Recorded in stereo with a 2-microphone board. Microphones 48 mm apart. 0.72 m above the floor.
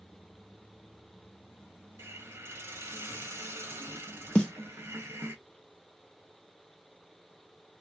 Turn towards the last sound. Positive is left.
turn(degrees=20)  # may be behind; listen again after turning